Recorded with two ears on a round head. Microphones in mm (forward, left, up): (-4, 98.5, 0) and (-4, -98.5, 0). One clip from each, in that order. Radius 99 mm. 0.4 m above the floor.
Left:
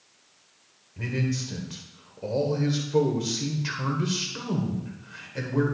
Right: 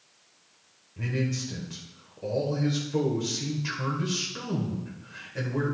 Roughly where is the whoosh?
No whoosh in this recording.